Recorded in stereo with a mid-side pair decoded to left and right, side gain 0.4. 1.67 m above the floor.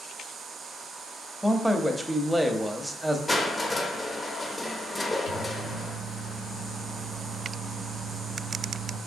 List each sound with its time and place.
1.4 s a man speaking: 10° right, 0.7 m
3.3 s crushing: 25° left, 0.9 m
5.3 s a microwave: 65° left, 0.9 m